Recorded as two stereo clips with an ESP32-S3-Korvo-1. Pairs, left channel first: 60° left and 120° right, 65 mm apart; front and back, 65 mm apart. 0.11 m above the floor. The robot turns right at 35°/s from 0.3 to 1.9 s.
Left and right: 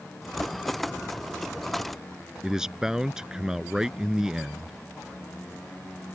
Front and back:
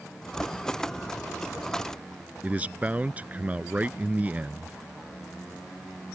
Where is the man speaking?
175° left.